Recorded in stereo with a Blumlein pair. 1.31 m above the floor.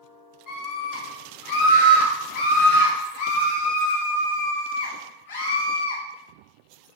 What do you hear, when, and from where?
0.5 s a scream: 35° left, 2.5 m; by 6.0 s 70° left, 4.5 m